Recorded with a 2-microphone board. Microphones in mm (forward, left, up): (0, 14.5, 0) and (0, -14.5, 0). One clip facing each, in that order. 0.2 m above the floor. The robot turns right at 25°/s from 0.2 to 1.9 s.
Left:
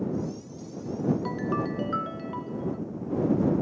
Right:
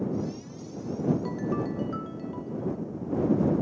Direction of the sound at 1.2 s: 25° left (ahead or behind).